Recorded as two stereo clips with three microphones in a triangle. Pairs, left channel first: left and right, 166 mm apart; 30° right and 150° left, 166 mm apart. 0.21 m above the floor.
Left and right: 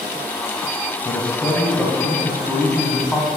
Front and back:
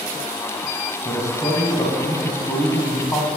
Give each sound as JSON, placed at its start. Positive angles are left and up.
{"t": 1.1, "sound": "a man speaking", "azimuth_deg": 15, "distance_m": 1.2}